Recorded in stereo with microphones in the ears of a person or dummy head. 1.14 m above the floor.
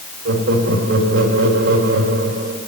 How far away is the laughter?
About 3.5 m.